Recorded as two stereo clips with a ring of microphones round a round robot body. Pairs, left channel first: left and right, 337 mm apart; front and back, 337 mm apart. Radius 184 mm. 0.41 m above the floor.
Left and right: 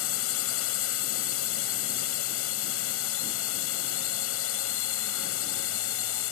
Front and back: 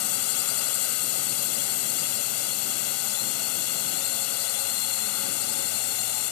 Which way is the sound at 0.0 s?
40° left.